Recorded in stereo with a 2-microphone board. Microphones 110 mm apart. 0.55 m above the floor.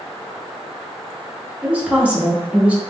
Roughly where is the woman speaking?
Centre.